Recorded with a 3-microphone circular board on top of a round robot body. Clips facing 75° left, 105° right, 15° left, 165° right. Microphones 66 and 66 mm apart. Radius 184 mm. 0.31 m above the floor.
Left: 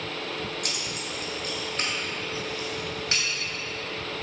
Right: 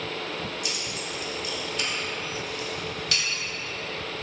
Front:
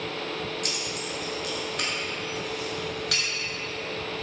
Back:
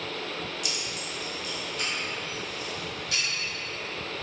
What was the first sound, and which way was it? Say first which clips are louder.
Keys jangling: even, front 3 dB; 50° left.